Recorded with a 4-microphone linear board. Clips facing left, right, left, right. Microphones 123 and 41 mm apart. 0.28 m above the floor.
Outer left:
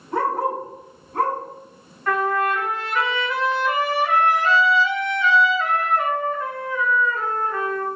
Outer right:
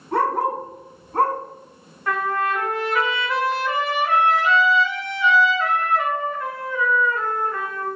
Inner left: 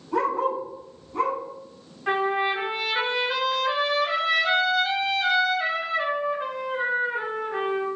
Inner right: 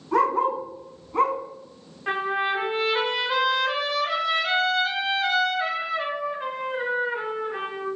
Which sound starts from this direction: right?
A dog barking, at 0.1 s.